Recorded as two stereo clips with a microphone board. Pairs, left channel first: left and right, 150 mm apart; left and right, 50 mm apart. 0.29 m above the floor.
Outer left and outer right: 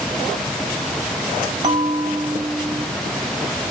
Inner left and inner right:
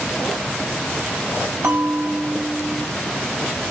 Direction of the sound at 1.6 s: 35° right (ahead or behind).